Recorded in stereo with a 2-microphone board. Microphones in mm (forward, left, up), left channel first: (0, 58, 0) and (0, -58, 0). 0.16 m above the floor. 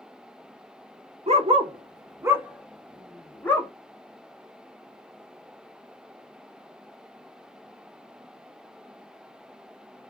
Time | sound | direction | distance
1.3 | a dog barking | 65° right (ahead or behind) | 0.8 m